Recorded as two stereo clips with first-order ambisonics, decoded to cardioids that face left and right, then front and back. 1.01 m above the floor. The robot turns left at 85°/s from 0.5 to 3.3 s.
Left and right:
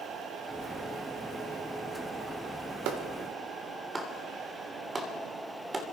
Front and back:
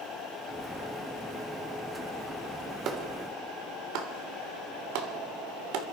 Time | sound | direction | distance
2.9 | a clap | 125° right | 3 m